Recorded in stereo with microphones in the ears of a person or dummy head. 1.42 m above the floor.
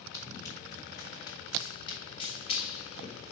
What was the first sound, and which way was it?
Running footsteps, 20° left (ahead or behind).